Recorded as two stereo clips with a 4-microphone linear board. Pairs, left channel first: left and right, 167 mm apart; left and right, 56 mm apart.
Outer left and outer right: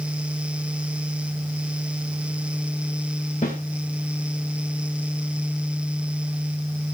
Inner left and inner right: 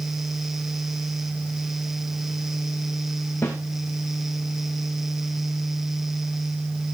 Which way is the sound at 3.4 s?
50° left (ahead or behind).